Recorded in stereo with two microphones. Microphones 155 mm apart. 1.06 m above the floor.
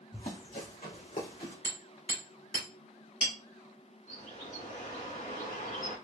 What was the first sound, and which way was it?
Running footsteps, 50° left (ahead or behind).